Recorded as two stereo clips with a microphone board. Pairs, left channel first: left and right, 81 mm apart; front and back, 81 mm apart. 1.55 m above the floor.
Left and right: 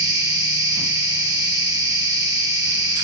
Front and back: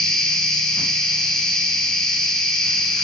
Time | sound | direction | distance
0.0 | an insect | 80° right | 1.3 m